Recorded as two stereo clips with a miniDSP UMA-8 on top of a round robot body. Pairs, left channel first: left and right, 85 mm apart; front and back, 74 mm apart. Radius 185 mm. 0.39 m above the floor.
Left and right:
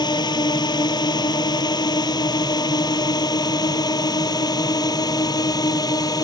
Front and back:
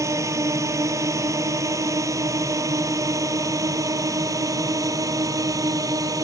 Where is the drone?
130° left; by 6.2 s 135° left.